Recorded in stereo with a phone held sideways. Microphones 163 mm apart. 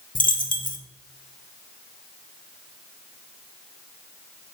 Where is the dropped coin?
55° left (ahead or behind), 0.8 m.